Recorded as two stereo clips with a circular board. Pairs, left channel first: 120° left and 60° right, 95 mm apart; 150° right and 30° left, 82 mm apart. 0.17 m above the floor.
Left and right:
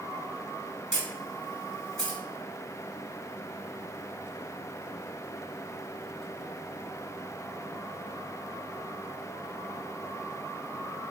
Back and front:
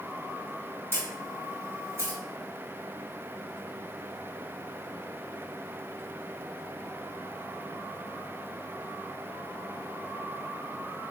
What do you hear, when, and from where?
0.9 s a camera shutter: 40° left, 1.7 m